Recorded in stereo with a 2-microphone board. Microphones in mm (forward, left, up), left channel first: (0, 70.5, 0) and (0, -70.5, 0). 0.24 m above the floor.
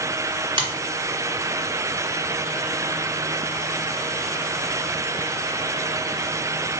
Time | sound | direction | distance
0.6 | a finger snap | 40° right (ahead or behind) | 1.3 m